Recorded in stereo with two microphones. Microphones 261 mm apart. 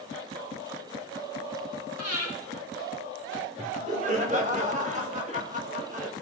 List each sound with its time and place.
2.0 s breathing: 75° right (ahead or behind), 4 m
3.6 s laughter: 30° right (ahead or behind), 2 m